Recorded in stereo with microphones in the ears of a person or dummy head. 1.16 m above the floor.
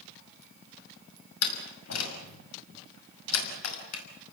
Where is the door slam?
80° left, 6 m.